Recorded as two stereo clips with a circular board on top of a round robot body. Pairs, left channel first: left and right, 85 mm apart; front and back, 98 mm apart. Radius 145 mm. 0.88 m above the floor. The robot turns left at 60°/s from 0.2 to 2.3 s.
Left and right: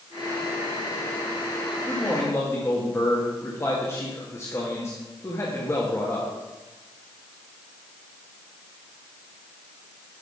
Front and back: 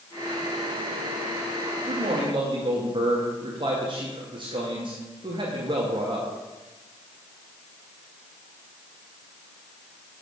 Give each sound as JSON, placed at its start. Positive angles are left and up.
{"t": 1.9, "sound": "a man speaking", "azimuth_deg": 175, "distance_m": 2.0}